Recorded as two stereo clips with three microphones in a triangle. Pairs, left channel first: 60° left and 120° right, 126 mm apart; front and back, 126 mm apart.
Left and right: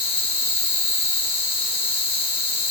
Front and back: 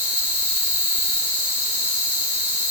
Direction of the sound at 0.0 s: 105° left.